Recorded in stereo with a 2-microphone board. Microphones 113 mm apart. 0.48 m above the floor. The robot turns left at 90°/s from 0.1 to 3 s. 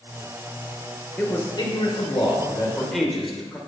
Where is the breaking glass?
I don't hear breaking glass.